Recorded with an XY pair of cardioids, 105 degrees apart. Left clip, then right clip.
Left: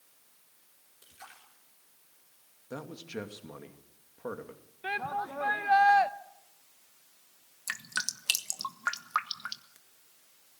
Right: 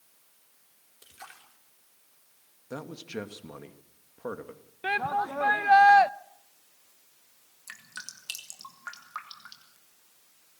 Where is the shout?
35° right, 0.8 m.